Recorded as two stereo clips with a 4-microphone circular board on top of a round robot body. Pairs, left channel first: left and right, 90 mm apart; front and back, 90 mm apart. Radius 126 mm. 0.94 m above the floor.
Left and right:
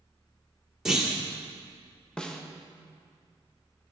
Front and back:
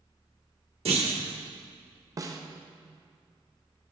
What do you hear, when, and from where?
0.8 s a clunk: 175° right, 1.7 m
2.2 s a snare drum: 165° left, 0.9 m